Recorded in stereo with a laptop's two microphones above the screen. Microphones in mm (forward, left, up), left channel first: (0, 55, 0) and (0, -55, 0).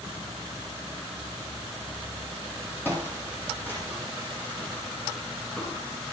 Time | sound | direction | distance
2.9 | footsteps | 20° left (ahead or behind) | 1.5 m